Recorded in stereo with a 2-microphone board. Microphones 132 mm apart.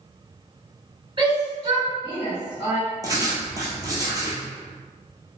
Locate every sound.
1.2 s a shout: 40° right (ahead or behind), 1.9 m; by 2.8 s 30° right (ahead or behind), 1.8 m
3.0 s writing: 25° right (ahead or behind), 0.9 m